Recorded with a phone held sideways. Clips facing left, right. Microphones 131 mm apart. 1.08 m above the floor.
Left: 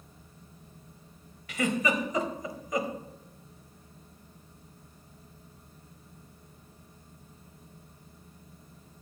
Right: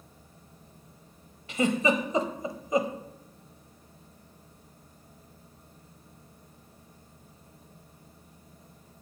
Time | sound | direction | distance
0.0 | a fan | 60° right (ahead or behind) | 3.5 m
1.5 | a giggle | 30° right (ahead or behind) | 0.9 m